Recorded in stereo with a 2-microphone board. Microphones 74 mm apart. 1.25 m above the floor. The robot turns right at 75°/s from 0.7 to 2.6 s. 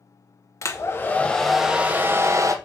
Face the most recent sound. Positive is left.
turn(degrees=-100)